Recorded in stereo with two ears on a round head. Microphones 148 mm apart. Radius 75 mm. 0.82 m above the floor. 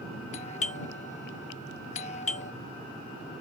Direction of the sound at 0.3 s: 40° left (ahead or behind).